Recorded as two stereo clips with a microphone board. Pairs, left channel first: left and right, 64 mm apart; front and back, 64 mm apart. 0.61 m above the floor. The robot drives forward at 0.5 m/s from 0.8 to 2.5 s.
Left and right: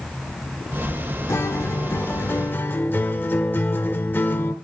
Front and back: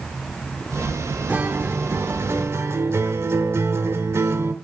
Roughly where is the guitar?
Behind left.